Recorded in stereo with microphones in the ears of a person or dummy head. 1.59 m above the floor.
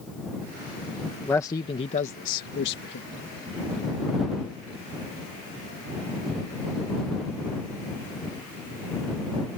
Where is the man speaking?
10° left (ahead or behind); by 3.1 s 70° left (ahead or behind).